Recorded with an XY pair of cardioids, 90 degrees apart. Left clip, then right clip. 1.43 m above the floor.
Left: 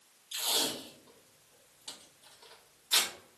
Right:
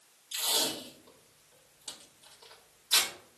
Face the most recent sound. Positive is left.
turn(degrees=-20)